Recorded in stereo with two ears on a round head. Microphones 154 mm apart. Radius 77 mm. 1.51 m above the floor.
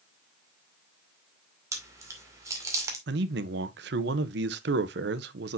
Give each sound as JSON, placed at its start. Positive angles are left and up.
{"t": 1.7, "sound": "chewing", "side_deg": -20, "distance_m": 2.0}
{"t": 3.1, "sound": "a man speaking", "side_deg": -70, "distance_m": 0.8}